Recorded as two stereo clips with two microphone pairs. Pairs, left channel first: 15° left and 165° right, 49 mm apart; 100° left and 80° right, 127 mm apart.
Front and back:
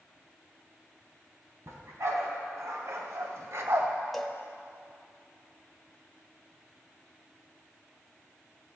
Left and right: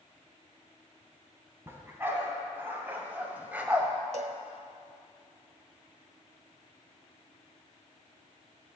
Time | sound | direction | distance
1.7 | a dog barking | 150° right | 2.5 m
4.1 | a cowbell | 70° right | 1.0 m